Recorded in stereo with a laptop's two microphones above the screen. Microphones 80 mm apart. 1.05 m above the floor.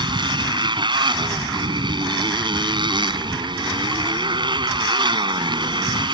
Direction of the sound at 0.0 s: 75° right (ahead or behind).